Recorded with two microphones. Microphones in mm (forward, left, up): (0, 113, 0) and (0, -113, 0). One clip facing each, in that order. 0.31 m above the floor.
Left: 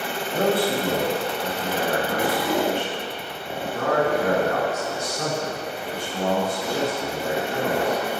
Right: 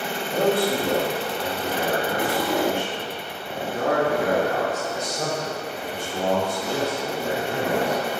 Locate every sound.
0.3 s a man speaking: 15° right (ahead or behind), 2 m; by 8.1 s 55° right (ahead or behind), 5 m